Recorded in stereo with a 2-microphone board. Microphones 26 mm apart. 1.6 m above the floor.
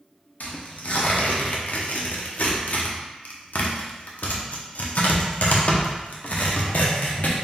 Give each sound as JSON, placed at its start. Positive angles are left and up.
{"t": 0.4, "sound": "tearing paper", "side_deg": 70, "distance_m": 0.6}